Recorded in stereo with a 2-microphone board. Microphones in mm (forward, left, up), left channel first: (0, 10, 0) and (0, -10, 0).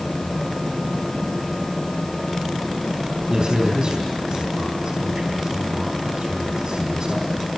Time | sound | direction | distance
3.3 | a man speaking | 50° right (ahead or behind) | 4 m